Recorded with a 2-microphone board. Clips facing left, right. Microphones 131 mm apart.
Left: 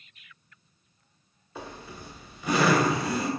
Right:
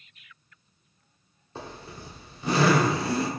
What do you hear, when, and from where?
1.6 s a zipper: 30° right (ahead or behind), 0.8 m